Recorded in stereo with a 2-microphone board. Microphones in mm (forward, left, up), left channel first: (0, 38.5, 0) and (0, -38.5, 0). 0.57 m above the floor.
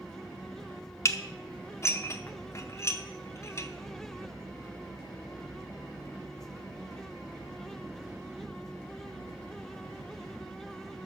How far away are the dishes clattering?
About 0.7 m.